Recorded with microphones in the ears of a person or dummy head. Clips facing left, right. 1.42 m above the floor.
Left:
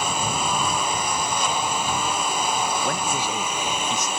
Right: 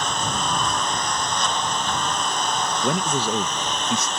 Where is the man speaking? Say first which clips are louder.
Right 3 dB; 75° right (ahead or behind).